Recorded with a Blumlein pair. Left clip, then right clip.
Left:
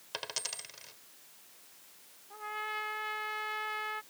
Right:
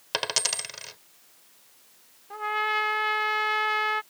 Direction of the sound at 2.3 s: 30° right.